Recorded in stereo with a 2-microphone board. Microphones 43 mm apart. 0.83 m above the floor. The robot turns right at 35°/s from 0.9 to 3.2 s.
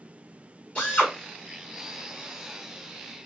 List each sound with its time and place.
0.8 s a drill: 30° left (ahead or behind), 2 m; by 1.1 s 35° left (ahead or behind), 2 m